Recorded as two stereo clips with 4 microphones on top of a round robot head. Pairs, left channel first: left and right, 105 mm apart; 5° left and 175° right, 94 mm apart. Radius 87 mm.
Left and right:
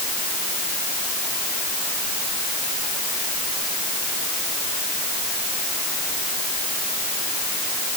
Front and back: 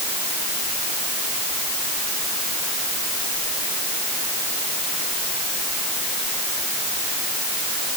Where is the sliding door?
I don't hear a sliding door.